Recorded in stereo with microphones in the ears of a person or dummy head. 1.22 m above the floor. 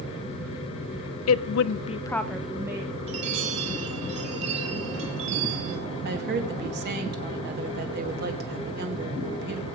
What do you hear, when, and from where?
1.3 s a woman speaking: 80° left, 0.6 m; by 2.9 s 15° right (ahead or behind), 1.3 m
3.1 s a chime: 35° right (ahead or behind), 2.5 m
6.0 s a woman speaking: 55° right (ahead or behind), 1.8 m